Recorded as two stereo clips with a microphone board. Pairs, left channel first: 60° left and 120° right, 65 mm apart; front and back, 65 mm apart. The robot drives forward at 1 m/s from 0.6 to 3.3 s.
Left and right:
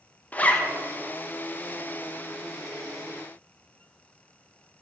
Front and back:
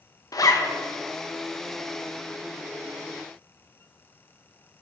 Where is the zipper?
5° right, 1.2 m.